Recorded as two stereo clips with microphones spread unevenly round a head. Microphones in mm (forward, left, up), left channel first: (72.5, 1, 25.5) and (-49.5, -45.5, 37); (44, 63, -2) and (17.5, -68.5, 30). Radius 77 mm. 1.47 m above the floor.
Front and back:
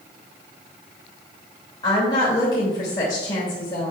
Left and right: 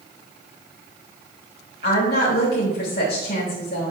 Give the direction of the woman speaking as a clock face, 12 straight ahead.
9 o'clock.